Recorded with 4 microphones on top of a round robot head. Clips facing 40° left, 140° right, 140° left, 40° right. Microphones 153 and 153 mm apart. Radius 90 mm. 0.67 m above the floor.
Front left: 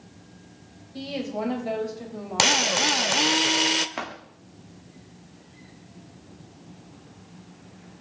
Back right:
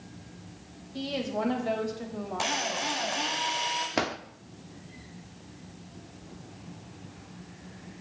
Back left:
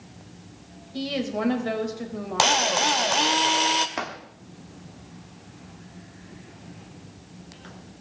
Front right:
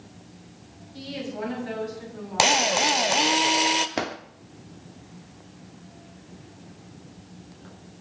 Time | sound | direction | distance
0.9 | a woman speaking | 125° left | 4 m
2.4 | a drill | 40° left | 0.9 m
4.0 | a drawer | 95° right | 0.9 m